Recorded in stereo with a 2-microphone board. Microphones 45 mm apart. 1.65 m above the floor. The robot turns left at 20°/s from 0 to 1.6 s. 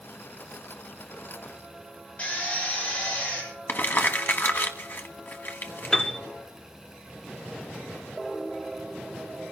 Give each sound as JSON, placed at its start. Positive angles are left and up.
{"t": 2.2, "sound": "a drill", "side_deg": 35, "distance_m": 7.5}
{"t": 3.7, "sound": "crumpling", "side_deg": 50, "distance_m": 1.2}
{"t": 5.9, "sound": "a piano", "side_deg": 15, "distance_m": 1.0}